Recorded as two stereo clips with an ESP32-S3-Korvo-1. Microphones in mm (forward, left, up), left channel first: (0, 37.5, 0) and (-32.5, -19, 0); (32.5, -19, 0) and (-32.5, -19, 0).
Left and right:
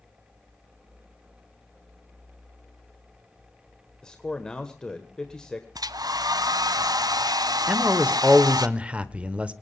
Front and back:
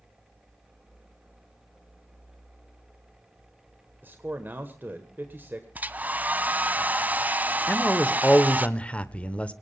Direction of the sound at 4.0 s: 135° left.